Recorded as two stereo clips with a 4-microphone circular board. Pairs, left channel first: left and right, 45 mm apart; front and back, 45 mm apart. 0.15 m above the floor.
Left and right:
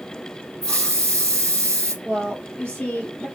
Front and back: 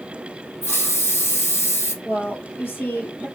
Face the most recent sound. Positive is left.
turn(degrees=35)